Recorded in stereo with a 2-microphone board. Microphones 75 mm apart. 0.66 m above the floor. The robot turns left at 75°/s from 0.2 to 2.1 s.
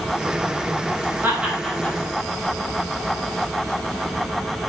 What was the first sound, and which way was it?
Laughter, 30° right (ahead or behind).